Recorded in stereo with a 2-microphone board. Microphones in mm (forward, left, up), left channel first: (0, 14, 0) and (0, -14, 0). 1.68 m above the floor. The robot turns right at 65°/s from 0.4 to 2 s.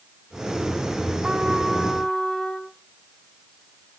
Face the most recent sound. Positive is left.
turn(degrees=20)